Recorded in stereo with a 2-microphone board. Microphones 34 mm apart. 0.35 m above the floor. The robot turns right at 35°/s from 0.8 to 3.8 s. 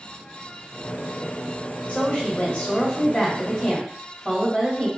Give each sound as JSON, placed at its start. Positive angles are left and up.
{"t": 1.9, "sound": "a woman speaking", "azimuth_deg": 100, "distance_m": 1.9}